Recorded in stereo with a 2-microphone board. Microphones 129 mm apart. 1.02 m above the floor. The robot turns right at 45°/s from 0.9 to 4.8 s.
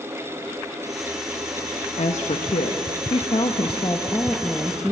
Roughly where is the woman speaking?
Ahead left.